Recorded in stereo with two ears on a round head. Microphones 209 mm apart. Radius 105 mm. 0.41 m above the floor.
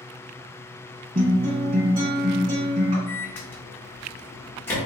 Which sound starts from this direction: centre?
A microwave, at 3.1 s.